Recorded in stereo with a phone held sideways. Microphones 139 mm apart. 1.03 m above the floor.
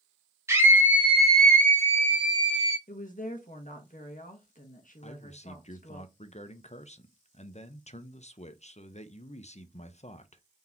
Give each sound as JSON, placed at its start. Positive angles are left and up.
{"t": 0.5, "sound": "a scream", "side_deg": -20, "distance_m": 1.9}
{"t": 2.9, "sound": "a woman speaking", "side_deg": 70, "distance_m": 1.2}
{"t": 5.0, "sound": "a man speaking", "side_deg": 55, "distance_m": 0.5}